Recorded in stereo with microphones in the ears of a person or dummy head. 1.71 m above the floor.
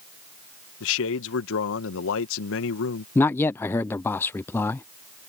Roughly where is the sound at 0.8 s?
Left.